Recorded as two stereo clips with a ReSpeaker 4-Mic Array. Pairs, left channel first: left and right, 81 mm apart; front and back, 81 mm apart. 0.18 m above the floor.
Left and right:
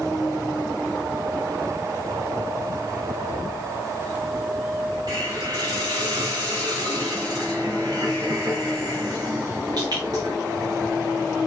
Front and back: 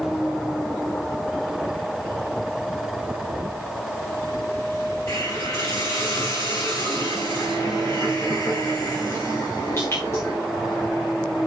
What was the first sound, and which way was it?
A hiss, 55° right.